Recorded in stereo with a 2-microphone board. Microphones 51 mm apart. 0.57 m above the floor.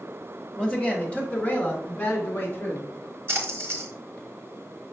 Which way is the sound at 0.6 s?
15° left (ahead or behind).